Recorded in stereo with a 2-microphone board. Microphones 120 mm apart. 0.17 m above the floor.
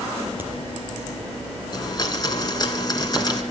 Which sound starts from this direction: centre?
A crack, at 0.4 s.